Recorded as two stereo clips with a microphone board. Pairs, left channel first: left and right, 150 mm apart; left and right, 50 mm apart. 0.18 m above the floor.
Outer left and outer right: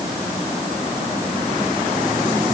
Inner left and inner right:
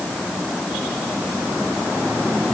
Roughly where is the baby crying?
No baby crying in this recording.